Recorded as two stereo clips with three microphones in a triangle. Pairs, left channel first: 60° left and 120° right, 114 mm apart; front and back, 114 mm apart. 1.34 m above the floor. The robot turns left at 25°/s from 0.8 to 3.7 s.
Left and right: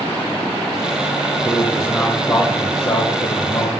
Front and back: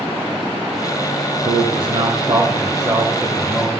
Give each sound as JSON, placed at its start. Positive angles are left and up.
{"t": 1.4, "sound": "a man speaking", "azimuth_deg": 155, "distance_m": 1.1}